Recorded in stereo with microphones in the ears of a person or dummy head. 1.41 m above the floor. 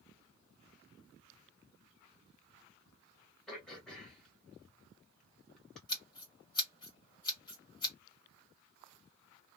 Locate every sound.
3.5 s throat clearing: centre (ahead or behind), 1.1 m
5.9 s scissors: 20° left (ahead or behind), 0.9 m